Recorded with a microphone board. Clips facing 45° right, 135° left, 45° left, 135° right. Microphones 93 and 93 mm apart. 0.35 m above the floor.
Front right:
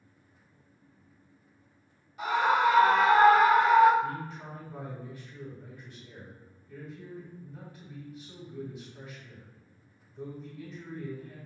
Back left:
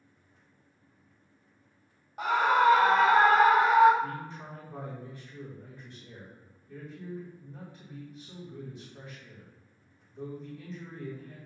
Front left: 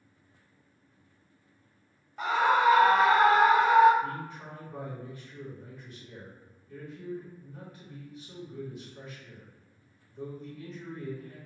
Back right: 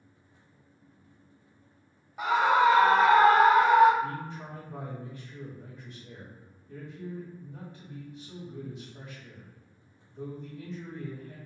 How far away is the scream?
About 1.6 m.